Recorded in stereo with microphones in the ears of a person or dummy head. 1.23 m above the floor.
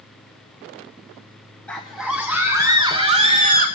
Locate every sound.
1.7 s a scream: centre (ahead or behind), 1.5 m; by 3.7 s 50° right (ahead or behind), 1.2 m